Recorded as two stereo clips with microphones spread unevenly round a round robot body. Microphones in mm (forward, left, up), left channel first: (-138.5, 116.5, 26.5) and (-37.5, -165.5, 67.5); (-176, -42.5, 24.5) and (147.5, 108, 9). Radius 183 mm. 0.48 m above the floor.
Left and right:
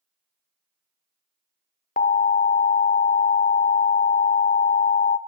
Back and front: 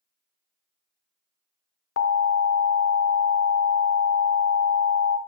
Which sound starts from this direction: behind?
An alarm, at 2.0 s.